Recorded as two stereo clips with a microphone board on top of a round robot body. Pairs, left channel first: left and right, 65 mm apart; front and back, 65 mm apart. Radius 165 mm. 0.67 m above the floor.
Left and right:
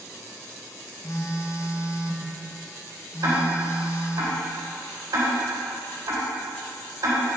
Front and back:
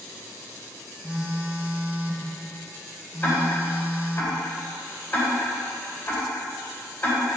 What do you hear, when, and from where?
1.0 s a phone buzzing: 115° left, 1.2 m
3.2 s ticking: 60° right, 3 m